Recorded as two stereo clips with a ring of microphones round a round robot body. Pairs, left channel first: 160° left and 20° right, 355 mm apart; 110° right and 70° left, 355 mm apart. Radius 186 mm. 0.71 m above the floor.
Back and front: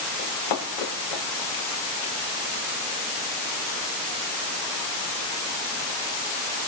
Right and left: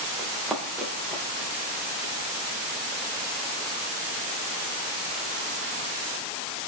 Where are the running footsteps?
160° left, 5 m; by 2.1 s 150° left, 6 m.